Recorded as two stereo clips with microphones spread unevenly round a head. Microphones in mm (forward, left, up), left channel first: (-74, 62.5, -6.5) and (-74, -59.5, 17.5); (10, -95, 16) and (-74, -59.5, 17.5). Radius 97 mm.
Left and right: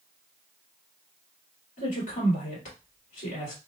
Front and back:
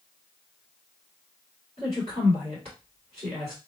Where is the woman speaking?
100° left, 2.5 m.